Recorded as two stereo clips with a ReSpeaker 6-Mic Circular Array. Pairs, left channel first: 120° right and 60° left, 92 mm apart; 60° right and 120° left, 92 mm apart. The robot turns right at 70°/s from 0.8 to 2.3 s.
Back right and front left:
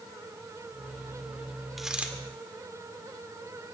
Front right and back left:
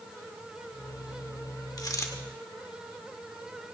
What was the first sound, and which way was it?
A dropped coin, 30° right.